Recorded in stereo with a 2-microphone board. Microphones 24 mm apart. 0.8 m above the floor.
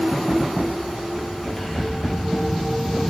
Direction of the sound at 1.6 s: 15° left (ahead or behind).